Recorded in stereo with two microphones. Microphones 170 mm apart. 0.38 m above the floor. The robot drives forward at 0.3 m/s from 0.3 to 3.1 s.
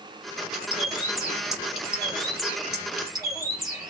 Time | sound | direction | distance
0.5 | a bird | 5° right (ahead or behind) | 2 m